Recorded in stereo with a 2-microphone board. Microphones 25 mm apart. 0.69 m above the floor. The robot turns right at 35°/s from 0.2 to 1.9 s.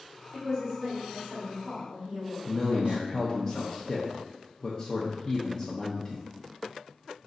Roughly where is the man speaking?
Left.